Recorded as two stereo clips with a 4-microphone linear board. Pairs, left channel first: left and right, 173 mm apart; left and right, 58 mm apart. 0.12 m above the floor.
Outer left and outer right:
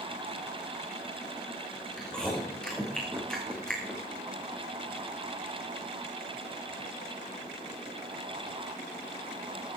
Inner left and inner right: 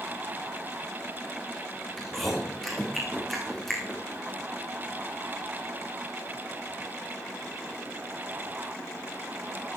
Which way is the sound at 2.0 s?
5° left (ahead or behind).